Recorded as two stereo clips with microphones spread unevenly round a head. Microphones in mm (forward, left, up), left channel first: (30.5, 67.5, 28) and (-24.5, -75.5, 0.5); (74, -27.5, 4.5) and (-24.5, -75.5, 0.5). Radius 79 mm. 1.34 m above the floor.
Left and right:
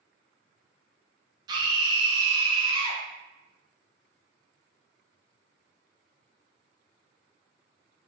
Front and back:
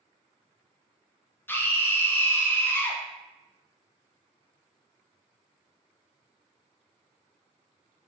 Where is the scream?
45° right, 0.6 m.